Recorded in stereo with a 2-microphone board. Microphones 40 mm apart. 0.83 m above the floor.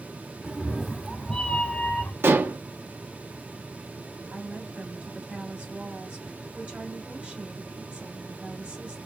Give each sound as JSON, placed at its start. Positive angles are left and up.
{"t": 0.4, "sound": "a cat meowing", "side_deg": -15, "distance_m": 0.9}
{"t": 2.2, "sound": "dishes clattering", "side_deg": -70, "distance_m": 0.8}
{"t": 4.3, "sound": "a woman speaking", "side_deg": -30, "distance_m": 2.5}